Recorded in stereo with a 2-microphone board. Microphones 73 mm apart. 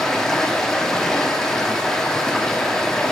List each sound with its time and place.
0.0 s running water: 10° left (ahead or behind), 0.9 m